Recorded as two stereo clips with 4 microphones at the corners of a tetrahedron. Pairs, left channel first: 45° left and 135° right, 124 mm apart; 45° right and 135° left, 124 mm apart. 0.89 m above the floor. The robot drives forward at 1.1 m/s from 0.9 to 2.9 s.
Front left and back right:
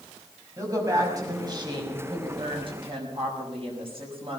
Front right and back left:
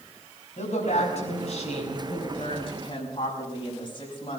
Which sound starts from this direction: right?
A woman speaking, at 0.6 s.